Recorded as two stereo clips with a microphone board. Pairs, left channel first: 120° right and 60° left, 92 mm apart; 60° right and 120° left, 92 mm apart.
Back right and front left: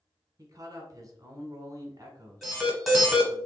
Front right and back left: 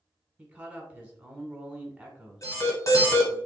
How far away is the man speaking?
About 1.3 m.